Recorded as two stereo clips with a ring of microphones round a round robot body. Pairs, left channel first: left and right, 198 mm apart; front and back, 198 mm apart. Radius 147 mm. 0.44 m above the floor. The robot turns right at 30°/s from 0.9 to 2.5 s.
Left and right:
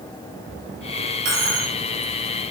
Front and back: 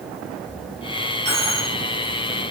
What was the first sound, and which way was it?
A dropped coin, 75° right.